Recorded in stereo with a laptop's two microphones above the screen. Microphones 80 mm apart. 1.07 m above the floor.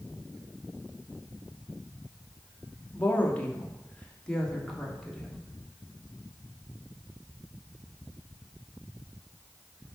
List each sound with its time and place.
2.9 s a woman speaking: 25° left (ahead or behind), 2.5 m; by 5.4 s centre (ahead or behind), 3 m